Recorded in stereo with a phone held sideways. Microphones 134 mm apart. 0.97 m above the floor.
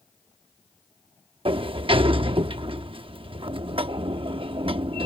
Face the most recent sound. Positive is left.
turn(degrees=-45)  # may be behind; listen again after turning